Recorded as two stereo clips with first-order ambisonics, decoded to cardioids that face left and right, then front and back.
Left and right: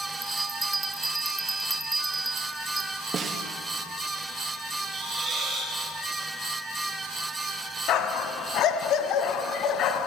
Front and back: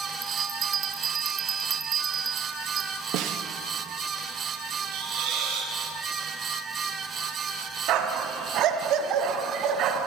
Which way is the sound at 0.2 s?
155° right.